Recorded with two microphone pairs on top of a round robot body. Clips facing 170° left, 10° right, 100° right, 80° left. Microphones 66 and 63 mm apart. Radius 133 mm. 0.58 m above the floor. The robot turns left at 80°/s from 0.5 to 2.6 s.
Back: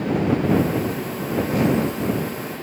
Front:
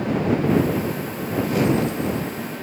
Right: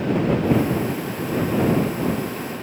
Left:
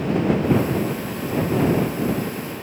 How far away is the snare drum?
I don't hear a snare drum.